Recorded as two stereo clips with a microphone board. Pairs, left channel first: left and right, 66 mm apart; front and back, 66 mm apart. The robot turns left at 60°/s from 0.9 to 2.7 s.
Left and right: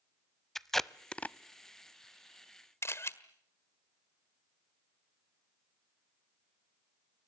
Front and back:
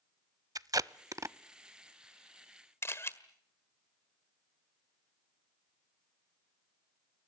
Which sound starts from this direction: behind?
Tape being pulled, at 0.6 s.